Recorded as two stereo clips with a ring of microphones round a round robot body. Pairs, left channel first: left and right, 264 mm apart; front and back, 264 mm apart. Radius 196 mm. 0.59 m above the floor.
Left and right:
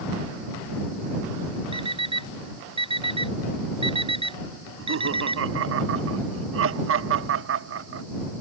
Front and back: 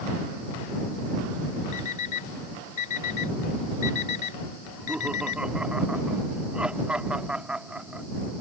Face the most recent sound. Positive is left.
turn(degrees=-95)